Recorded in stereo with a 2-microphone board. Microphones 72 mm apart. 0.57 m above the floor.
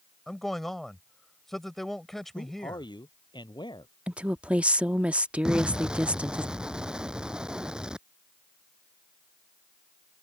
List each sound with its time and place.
0.3 s a man speaking: centre (ahead or behind)
2.4 s a man speaking: 80° left
4.1 s a woman speaking: 15° right (ahead or behind)
5.5 s an explosion: 10° right (ahead or behind)